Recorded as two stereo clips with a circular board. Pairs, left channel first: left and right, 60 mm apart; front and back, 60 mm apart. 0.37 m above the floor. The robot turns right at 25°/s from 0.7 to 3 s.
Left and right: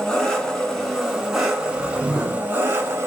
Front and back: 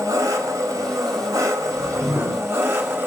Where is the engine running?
170° left, 1.0 m; by 3.1 s 135° right, 1.0 m.